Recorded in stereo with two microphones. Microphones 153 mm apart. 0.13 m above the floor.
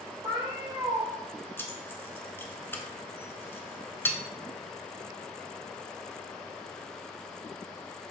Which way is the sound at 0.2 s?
25° right (ahead or behind).